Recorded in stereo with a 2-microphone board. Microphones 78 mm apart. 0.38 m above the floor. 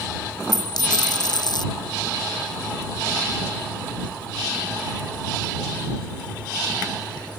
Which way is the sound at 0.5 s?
65° left (ahead or behind).